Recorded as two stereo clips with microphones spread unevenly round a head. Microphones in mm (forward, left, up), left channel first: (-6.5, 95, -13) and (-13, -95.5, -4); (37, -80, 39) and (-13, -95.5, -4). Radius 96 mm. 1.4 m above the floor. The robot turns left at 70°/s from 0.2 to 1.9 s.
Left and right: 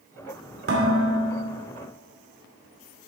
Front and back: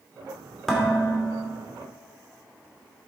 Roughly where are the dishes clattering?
Ahead right.